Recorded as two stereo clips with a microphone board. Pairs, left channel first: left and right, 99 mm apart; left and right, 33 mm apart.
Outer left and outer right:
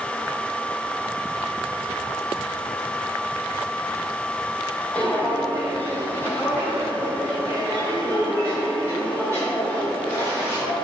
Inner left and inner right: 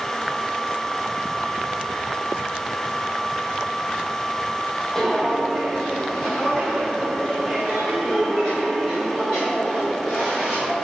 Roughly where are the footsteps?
Centre.